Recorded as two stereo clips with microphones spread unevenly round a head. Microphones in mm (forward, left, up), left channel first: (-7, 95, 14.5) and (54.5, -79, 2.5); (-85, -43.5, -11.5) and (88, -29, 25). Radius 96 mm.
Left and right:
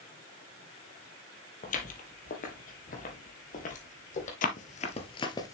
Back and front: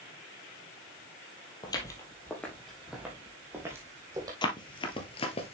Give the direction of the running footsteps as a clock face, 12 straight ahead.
8 o'clock.